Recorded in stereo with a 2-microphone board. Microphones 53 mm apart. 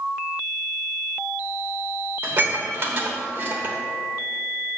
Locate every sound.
2.2 s dishes clattering: 35° right (ahead or behind), 1.2 m